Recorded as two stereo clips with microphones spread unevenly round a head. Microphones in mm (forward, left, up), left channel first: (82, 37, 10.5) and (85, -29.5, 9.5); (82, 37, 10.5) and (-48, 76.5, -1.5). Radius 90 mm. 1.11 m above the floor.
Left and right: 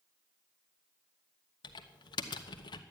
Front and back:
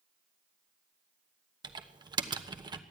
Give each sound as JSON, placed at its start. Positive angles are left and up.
{"t": 1.6, "sound": "typing on a keyboard", "azimuth_deg": 105, "distance_m": 1.1}